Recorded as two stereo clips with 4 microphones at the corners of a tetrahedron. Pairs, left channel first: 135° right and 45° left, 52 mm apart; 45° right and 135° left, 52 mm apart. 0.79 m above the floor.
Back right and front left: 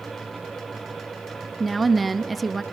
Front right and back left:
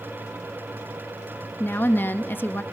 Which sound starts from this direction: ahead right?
A woman speaking, at 1.6 s.